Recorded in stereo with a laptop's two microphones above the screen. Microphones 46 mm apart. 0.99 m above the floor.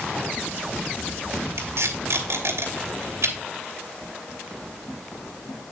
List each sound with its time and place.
1.6 s tape being pulled: 75° right (ahead or behind), 3 m